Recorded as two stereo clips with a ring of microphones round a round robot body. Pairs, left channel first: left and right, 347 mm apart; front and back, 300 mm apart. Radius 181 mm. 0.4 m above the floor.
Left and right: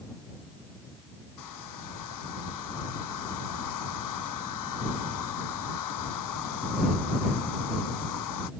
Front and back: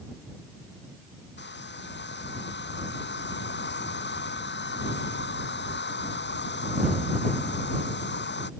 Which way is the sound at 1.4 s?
55° left.